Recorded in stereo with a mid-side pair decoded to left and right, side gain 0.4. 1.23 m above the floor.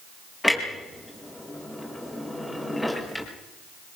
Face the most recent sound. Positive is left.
turn(degrees=15)